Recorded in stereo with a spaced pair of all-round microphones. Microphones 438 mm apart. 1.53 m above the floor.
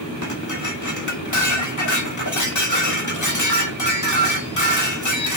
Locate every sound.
0.2 s dishes clattering: 40° left (ahead or behind), 1.7 m